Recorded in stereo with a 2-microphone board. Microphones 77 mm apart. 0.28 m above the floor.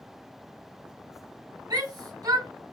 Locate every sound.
1.7 s a shout: 55° right (ahead or behind), 2.0 m